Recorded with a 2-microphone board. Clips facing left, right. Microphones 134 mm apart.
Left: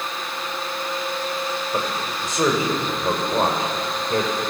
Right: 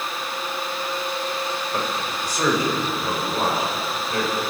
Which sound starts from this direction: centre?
A man speaking, at 1.7 s.